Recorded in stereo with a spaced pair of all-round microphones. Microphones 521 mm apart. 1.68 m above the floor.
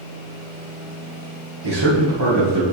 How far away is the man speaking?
About 2.5 m.